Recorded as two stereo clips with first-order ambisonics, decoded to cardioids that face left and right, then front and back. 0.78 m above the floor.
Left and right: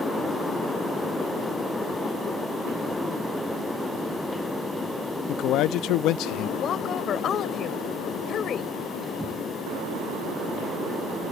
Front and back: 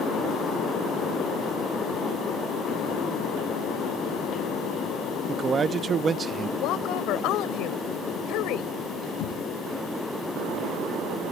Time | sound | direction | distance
5.3 | a man speaking | 110° left | ?
6.6 | a woman speaking | 30° left | ?
9.2 | knocking | 10° right | ?